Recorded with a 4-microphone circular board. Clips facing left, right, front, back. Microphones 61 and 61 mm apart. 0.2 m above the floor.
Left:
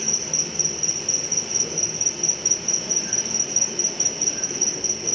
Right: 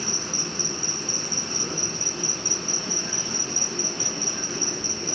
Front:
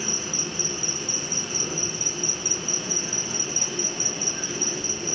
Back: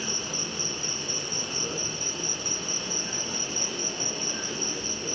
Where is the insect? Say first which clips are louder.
Right 1 dB, front 2 dB; 80° right, 3.5 m.